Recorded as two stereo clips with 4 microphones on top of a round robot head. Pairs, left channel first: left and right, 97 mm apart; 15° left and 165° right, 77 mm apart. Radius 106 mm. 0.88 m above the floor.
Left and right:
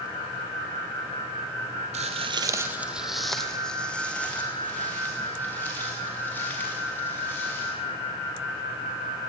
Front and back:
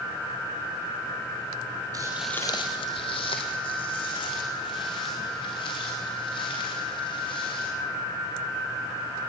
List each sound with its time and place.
1.9 s footsteps: 110° right, 1.2 m; by 7.7 s 20° left, 8 m